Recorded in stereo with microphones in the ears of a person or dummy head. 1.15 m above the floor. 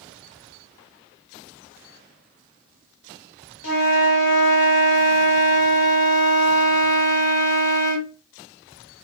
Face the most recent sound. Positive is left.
turn(degrees=65)  # may be behind; listen again after turning